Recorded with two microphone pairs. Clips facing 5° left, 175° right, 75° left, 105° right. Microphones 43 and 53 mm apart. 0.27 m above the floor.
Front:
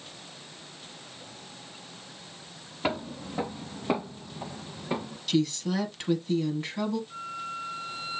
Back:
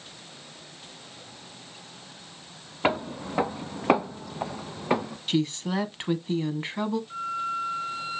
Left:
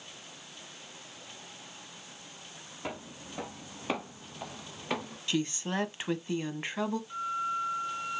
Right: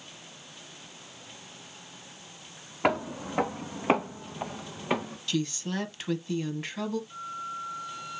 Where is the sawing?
No sawing in this recording.